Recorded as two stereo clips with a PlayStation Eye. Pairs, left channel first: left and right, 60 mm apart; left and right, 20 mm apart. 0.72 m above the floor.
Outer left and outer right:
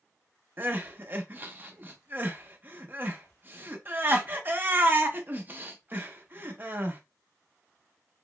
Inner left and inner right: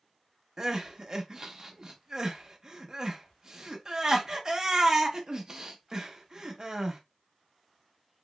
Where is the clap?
No clap in this recording.